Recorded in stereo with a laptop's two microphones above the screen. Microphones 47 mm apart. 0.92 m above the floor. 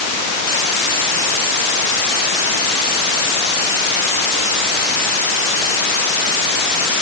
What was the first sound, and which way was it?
Only background noise.